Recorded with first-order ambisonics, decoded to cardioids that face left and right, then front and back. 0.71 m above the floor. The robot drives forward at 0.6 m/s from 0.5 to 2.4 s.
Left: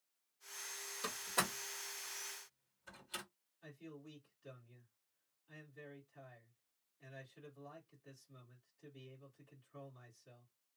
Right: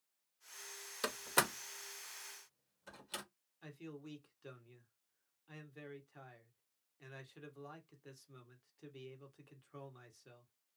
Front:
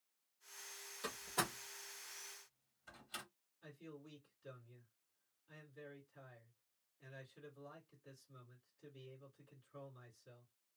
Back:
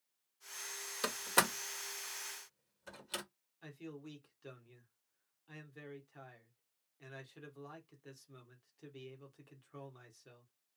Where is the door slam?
135° right, 0.7 m; by 3.2 s 160° right, 1.4 m.